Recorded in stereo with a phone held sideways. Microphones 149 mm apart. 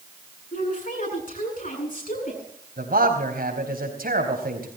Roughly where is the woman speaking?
Left.